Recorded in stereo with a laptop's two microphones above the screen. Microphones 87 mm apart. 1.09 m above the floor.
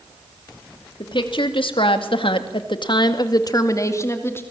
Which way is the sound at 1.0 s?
65° left (ahead or behind).